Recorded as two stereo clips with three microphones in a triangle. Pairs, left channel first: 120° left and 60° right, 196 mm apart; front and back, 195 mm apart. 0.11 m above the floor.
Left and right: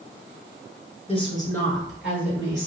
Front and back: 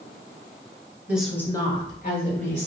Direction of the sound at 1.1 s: 105° left.